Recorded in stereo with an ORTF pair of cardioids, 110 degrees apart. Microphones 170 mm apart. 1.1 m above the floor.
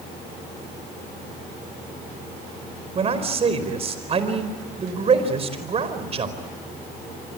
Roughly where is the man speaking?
Ahead right.